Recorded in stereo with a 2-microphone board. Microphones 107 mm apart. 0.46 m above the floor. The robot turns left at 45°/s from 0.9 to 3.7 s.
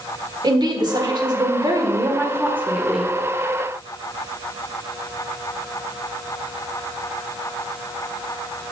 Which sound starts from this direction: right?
A woman speaking, at 0.4 s.